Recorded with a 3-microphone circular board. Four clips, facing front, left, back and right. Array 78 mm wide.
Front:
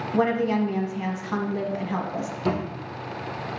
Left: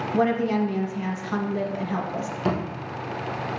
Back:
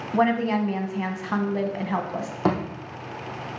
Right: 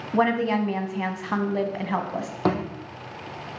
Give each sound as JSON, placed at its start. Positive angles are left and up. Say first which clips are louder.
{"t": 0.1, "sound": "a woman speaking", "louder": "right 1 dB, back 1 dB", "azimuth_deg": -120, "distance_m": 1.3}
{"t": 2.5, "sound": "a thud", "louder": "right 2 dB, back 3 dB", "azimuth_deg": -135, "distance_m": 3.0}